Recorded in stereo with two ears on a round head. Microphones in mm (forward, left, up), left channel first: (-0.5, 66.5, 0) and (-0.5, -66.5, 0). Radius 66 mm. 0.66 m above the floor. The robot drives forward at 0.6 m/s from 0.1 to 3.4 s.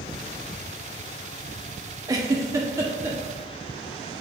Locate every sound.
2.1 s a giggle: 25° right (ahead or behind), 1.0 m; by 3.2 s 15° right (ahead or behind), 1.3 m